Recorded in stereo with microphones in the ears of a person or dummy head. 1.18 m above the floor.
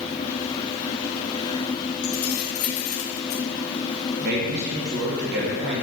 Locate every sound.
2.0 s keys jangling: 70° left (ahead or behind), 1.1 m; by 3.4 s 55° left (ahead or behind), 0.5 m
4.2 s a man speaking: 55° right (ahead or behind), 0.7 m